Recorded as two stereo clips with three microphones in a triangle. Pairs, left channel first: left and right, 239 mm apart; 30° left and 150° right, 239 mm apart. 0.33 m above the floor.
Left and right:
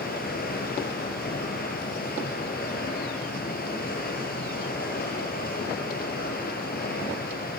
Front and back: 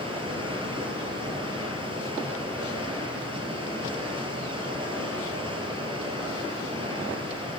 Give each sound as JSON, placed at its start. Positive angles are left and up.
{"t": 0.0, "sound": "running water", "azimuth_deg": 140, "distance_m": 4.0}